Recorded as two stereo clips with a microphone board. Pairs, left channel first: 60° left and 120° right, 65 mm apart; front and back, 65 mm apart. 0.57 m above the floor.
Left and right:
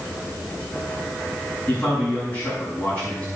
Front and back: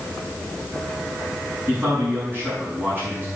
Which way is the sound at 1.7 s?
125° left.